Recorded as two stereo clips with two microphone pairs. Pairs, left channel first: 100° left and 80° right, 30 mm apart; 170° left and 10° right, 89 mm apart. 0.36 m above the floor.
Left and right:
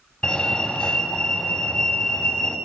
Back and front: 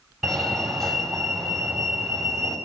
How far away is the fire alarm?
About 3.5 m.